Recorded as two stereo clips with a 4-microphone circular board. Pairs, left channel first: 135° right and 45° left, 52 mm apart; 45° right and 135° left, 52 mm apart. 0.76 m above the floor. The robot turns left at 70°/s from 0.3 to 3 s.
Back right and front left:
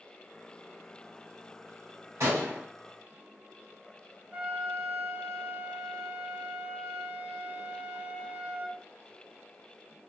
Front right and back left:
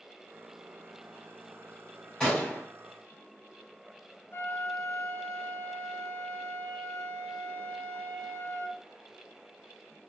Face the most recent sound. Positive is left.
turn(degrees=-15)